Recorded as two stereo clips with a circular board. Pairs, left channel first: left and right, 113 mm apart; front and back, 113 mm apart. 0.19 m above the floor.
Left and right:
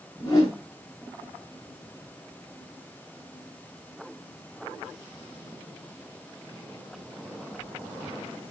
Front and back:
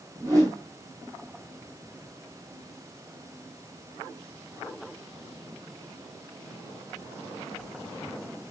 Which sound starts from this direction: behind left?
A whoosh, at 0.2 s.